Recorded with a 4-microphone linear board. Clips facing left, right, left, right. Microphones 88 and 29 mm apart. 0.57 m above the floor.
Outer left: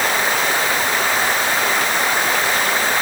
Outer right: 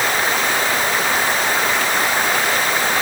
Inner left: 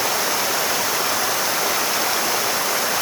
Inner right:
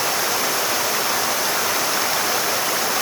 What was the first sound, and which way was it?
Only background noise.